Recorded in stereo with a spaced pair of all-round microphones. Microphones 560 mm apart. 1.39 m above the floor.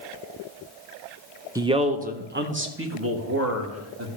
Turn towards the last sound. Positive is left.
turn(degrees=-25)  # may be behind; listen again after turning